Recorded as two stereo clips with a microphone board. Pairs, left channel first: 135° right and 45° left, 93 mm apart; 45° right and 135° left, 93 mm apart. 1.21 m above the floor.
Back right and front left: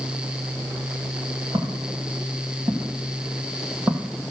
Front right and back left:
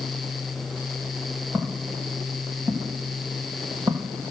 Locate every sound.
1.5 s footsteps: 70° left, 3.5 m; by 4.3 s 105° left, 1.9 m